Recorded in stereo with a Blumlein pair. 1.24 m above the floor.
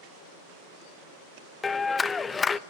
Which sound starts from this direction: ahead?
A clap, at 1.6 s.